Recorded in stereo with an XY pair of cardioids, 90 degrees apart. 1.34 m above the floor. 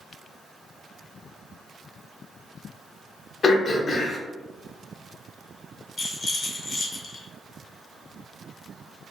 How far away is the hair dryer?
No hair dryer in this recording.